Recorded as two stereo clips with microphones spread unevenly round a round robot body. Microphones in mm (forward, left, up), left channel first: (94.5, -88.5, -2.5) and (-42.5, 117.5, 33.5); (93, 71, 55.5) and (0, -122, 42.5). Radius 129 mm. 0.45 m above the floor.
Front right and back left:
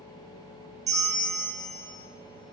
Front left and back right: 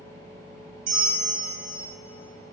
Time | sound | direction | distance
0.9 | a bell | 155° right | 2 m